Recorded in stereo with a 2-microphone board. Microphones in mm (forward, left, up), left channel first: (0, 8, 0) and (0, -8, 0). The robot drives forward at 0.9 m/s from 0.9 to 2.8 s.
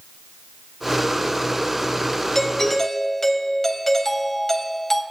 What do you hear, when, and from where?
2.4 s a doorbell: 25° left (ahead or behind), 1.3 m; by 5.0 s 20° left (ahead or behind), 1.7 m